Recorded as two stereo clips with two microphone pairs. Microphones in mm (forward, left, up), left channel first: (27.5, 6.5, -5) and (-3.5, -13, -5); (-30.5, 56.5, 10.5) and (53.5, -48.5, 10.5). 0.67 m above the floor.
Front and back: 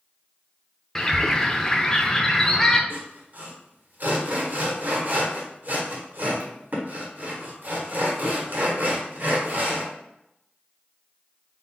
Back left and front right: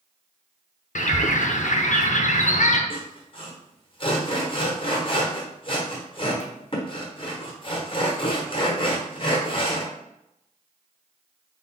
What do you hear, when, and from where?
0.9 s a bird: 105° left, 0.5 m
2.9 s sawing: 175° left, 1.2 m